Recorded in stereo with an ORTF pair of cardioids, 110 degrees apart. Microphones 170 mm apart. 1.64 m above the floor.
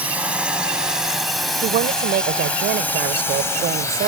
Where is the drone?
10° right; by 4.1 s 20° left.